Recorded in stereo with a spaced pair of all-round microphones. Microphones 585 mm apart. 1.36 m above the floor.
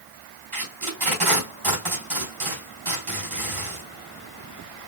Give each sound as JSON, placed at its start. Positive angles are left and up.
{"t": 0.5, "sound": "tape being pulled", "side_deg": -55, "distance_m": 3.0}